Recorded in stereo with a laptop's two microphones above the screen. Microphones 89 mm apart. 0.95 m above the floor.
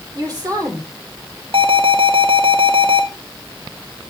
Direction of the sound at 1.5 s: 70° right (ahead or behind).